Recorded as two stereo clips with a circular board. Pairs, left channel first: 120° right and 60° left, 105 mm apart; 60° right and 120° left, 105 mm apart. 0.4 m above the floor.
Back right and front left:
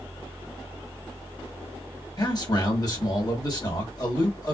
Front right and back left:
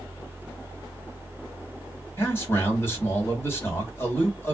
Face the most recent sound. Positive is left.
turn(degrees=-110)